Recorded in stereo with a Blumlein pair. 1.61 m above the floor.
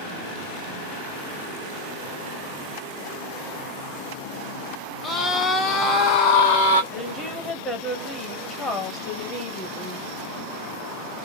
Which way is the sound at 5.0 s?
10° left.